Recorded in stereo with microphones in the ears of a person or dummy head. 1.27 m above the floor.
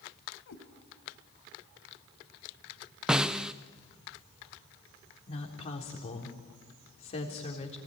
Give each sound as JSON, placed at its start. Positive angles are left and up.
{"t": 0.5, "sound": "a cat meowing", "side_deg": 65, "distance_m": 2.5}
{"t": 3.1, "sound": "a snare drum", "side_deg": -5, "distance_m": 0.7}
{"t": 5.3, "sound": "a woman speaking", "side_deg": 30, "distance_m": 3.5}